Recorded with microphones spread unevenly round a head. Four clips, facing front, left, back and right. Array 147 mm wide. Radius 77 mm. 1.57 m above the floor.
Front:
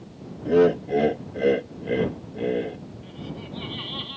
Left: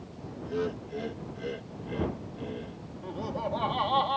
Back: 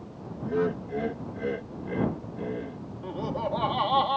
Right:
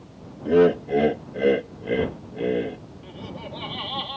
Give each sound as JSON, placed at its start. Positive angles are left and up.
{"t": 0.5, "sound": "laughter", "azimuth_deg": -45}
{"t": 3.0, "sound": "laughter", "azimuth_deg": 155}